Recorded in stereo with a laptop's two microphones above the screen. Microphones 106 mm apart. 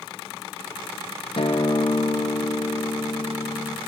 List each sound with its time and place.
1.4 s a guitar: 60° left (ahead or behind), 0.8 m